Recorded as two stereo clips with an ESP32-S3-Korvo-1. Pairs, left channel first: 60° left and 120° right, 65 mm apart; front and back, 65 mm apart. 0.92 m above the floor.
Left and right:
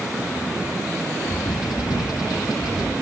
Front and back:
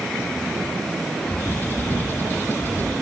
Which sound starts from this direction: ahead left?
A bird, at 1.2 s.